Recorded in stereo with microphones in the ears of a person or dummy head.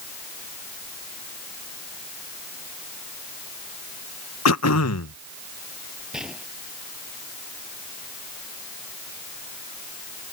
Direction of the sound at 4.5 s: 80° left.